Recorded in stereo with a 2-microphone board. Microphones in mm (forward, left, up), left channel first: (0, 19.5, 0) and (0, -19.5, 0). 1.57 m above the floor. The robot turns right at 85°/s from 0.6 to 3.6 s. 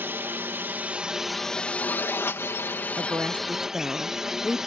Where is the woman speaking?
70° right; by 4.6 s 15° right.